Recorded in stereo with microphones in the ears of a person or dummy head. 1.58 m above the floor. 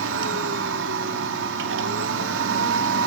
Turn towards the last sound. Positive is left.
turn(degrees=-75)  # may be behind; listen again after turning